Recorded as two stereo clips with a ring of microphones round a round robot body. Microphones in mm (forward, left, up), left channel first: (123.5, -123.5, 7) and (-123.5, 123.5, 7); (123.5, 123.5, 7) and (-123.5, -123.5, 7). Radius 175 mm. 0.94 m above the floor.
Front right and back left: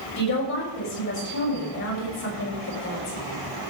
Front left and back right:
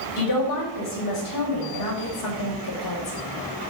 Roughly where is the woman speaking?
Ahead.